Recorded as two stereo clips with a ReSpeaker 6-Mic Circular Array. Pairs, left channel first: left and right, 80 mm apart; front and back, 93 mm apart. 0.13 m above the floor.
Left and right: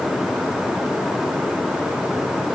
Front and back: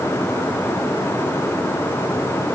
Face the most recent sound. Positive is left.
No sound to turn to.